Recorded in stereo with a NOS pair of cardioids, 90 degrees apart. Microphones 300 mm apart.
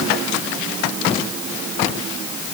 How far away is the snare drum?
No snare drum in this recording.